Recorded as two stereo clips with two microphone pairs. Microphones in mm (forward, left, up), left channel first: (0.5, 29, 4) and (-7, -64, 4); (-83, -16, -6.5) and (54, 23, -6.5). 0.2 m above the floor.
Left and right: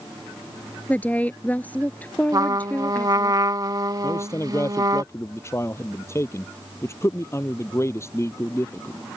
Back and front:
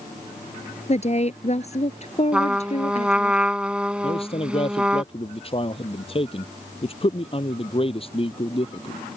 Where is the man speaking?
145° left.